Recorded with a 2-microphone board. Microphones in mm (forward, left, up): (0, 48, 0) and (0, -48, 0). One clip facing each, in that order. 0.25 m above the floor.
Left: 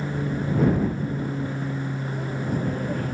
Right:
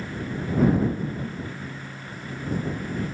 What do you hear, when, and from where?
0.0 s an aircraft: 50° left (ahead or behind)